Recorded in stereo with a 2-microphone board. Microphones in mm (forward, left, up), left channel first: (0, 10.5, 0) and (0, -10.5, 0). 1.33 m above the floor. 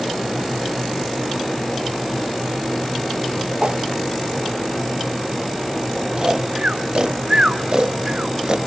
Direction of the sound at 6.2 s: 35° right (ahead or behind).